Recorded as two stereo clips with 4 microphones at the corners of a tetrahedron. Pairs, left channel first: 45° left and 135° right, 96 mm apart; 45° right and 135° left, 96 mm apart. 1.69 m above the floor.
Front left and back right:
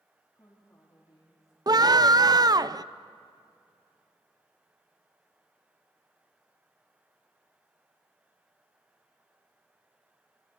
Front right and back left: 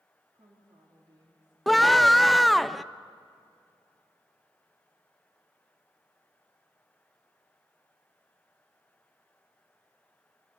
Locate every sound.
0.3 s a woman speaking: 95° left, 3.5 m
1.7 s a scream: 135° right, 0.6 m